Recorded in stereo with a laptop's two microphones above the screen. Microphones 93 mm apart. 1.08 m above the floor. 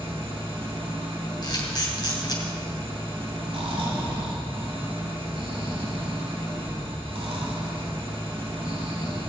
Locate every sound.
0.0 s an engine running: 80° right, 5.5 m
1.4 s a camera shutter: 50° left (ahead or behind), 2.5 m
3.5 s snoring: 80° right, 3 m